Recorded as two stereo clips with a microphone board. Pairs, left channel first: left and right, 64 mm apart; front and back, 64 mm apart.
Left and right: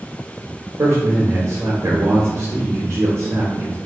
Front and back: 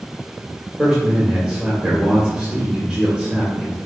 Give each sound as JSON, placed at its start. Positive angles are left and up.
{"t": 0.8, "sound": "a man speaking", "azimuth_deg": -110, "distance_m": 1.4}